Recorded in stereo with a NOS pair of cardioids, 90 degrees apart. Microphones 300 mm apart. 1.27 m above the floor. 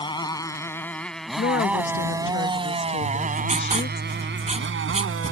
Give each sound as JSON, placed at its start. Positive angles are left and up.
{"t": 0.0, "sound": "a motorcycle", "azimuth_deg": 15}
{"t": 1.4, "sound": "a woman speaking", "azimuth_deg": 40}
{"t": 3.0, "sound": "writing", "azimuth_deg": -20}